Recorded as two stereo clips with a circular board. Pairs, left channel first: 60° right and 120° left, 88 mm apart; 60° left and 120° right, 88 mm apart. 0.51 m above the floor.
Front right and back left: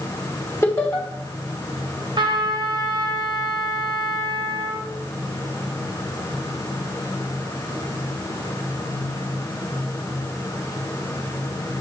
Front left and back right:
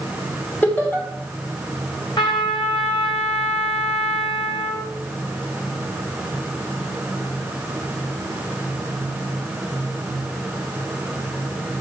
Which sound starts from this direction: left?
A trumpet, at 2.2 s.